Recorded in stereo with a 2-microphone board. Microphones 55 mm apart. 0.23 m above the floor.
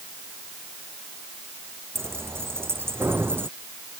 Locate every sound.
1.9 s keys jangling: 50° right (ahead or behind); by 3.5 s 45° right (ahead or behind)